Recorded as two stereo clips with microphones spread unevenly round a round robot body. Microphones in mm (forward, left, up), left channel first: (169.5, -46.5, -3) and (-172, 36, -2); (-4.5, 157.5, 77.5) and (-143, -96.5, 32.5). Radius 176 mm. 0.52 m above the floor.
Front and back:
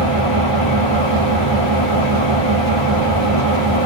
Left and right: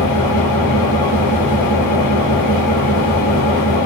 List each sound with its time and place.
0.0 s an engine running: 5° right, 8.5 m